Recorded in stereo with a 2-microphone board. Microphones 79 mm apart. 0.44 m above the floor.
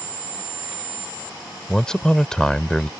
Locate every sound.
1.7 s a man speaking: 10° left (ahead or behind)